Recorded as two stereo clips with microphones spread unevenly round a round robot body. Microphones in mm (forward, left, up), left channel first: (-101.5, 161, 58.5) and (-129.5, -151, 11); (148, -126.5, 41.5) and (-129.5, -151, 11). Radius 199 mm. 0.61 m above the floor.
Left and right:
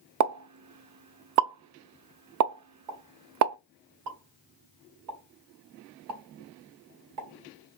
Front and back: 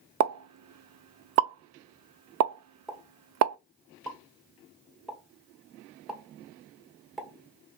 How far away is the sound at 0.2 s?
About 0.5 m.